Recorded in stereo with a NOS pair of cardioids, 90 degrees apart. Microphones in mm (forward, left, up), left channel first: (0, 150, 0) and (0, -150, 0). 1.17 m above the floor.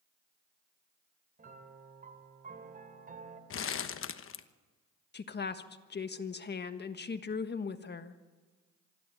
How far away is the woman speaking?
About 1.5 m.